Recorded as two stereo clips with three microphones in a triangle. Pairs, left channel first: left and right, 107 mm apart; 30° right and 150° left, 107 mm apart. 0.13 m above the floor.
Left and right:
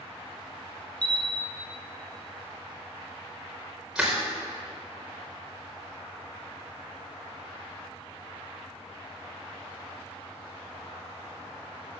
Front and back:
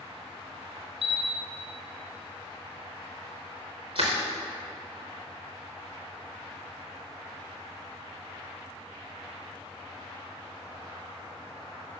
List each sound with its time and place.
1.0 s a camera shutter: 170° left, 1.2 m
4.0 s crushing: 175° right, 4 m